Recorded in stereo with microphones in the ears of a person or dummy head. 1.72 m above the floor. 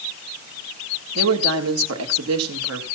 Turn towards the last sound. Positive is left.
turn(degrees=-80)